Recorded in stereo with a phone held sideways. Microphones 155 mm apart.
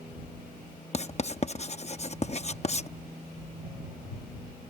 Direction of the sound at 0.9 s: 45° left (ahead or behind).